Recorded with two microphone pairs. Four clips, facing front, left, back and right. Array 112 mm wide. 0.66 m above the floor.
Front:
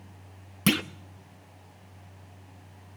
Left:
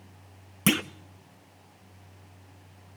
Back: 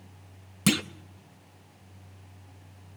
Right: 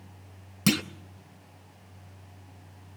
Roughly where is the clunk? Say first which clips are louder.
Even, even; left.